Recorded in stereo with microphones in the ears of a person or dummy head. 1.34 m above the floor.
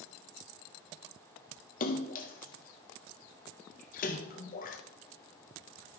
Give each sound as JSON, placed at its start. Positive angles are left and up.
{"t": 1.8, "sound": "a splash", "side_deg": 40, "distance_m": 0.6}